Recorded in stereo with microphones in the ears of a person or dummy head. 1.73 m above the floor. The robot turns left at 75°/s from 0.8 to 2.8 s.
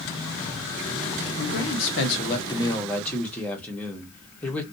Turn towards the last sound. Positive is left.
turn(degrees=10)